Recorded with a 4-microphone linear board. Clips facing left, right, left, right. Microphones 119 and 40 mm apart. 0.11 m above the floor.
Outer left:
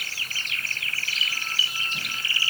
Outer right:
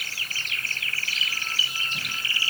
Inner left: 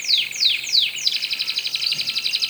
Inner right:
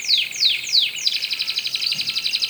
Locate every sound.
Only background noise.